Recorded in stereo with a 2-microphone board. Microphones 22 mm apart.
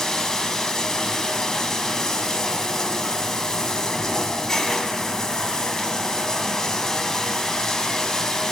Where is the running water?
30° left (ahead or behind), 1.4 m.